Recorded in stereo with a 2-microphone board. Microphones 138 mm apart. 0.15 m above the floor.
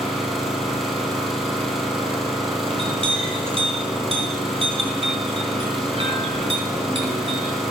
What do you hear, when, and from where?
0.0 s an engine running: centre (ahead or behind), 3 m
2.7 s a clink: 45° right (ahead or behind), 3.5 m